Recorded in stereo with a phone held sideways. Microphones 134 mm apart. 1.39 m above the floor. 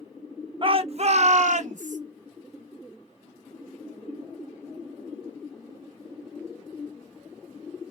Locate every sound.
0.6 s a shout: 40° right (ahead or behind), 1.0 m; by 2.0 s 75° right (ahead or behind), 1.6 m